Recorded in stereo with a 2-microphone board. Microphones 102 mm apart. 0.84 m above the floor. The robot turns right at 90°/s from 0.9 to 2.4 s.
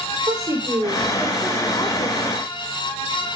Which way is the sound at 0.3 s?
40° right.